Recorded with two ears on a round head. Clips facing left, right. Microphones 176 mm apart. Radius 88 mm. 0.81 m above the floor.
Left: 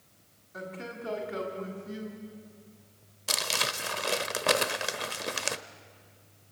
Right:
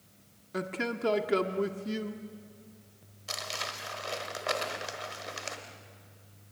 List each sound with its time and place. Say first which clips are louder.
0.5 s a man speaking: right 6 dB; 80° right, 1.4 m
3.3 s crumpling: left 5 dB; 65° left (ahead or behind), 1.0 m